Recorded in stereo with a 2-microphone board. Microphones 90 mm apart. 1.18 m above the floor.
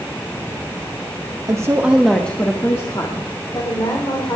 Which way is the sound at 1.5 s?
40° right (ahead or behind).